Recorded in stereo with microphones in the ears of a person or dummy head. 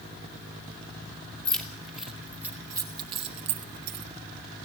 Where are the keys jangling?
5° left (ahead or behind), 2.5 m; by 4.0 s 45° right (ahead or behind), 1.4 m.